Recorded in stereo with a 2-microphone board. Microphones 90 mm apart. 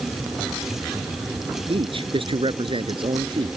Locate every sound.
1.7 s a man speaking: 80° right; by 3.5 s 70° right (ahead or behind)